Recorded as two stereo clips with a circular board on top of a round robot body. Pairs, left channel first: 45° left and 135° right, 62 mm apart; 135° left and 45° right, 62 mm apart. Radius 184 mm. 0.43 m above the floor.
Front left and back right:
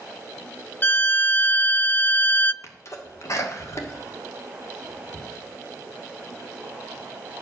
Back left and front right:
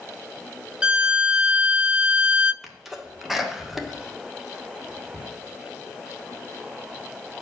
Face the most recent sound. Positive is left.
turn(degrees=40)